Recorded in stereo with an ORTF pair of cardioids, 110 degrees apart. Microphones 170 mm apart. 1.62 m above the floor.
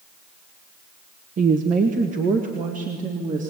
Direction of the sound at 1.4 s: 45° right.